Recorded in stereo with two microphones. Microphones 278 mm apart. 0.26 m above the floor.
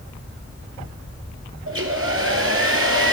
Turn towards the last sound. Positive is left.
turn(degrees=-50)  # may be behind; listen again after turning